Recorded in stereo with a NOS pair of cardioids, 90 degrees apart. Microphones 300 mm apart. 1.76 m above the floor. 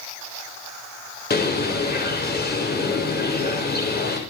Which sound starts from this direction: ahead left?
A bird, at 1.3 s.